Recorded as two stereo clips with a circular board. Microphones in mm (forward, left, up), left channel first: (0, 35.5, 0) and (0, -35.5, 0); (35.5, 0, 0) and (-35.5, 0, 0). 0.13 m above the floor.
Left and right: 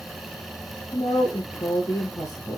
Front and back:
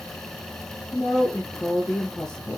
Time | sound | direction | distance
0.9 | a woman speaking | 70° left | 2.5 m